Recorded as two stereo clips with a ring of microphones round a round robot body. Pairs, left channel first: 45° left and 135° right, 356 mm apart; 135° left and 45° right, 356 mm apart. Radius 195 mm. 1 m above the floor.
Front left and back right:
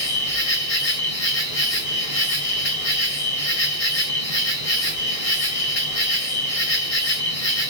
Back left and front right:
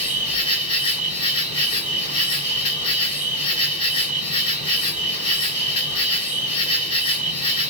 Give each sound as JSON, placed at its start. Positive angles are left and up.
{"t": 0.0, "sound": "an insect", "azimuth_deg": 60, "distance_m": 2.5}